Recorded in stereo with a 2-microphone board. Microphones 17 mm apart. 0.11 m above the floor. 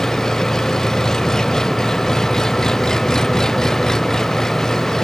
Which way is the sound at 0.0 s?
40° left (ahead or behind).